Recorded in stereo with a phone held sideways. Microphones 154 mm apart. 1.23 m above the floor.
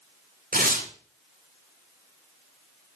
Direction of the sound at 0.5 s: 65° right (ahead or behind).